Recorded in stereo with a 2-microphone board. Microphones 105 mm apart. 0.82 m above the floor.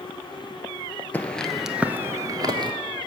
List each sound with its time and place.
1.1 s footsteps: 15° left (ahead or behind), 1.1 m; by 2.7 s 45° right (ahead or behind), 1.1 m